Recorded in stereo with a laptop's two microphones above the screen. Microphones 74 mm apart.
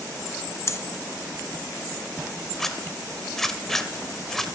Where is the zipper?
5° left (ahead or behind), 1.2 m.